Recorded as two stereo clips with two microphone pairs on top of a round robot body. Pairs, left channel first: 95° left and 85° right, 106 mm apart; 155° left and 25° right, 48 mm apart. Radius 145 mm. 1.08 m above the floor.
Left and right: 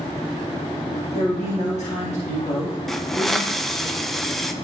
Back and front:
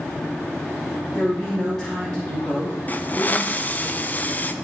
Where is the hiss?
175° right, 0.9 m.